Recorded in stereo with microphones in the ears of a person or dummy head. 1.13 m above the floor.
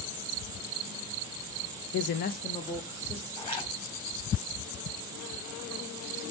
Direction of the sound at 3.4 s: 30° left (ahead or behind).